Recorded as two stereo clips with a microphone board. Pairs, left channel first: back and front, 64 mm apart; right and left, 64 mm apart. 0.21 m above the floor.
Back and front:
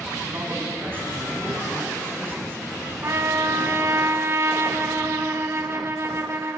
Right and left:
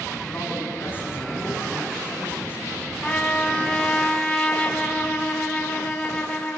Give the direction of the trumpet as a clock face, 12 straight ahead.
1 o'clock.